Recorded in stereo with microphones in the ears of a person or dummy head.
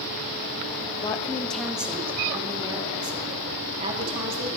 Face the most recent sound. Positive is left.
turn(degrees=-40)  # may be behind; listen again after turning